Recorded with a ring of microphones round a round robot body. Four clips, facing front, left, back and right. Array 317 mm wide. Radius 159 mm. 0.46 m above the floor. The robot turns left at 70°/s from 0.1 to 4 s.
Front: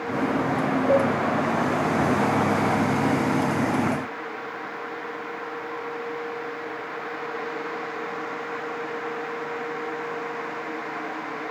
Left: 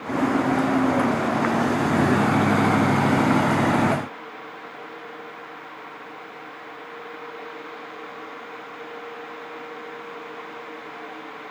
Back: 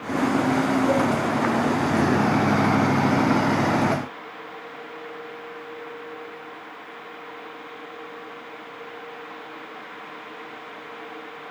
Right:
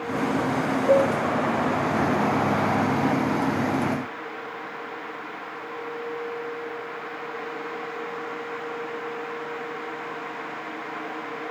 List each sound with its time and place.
0.9 s a cowbell: 60° right, 8.5 m; by 1.1 s 75° right, 8.5 m